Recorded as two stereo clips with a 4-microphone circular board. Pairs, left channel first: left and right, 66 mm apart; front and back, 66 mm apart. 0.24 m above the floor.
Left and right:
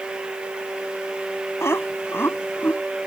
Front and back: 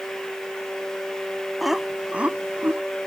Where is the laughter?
95° left; by 2.8 s 140° left.